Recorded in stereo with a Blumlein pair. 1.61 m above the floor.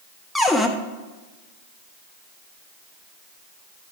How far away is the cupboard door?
About 0.8 m.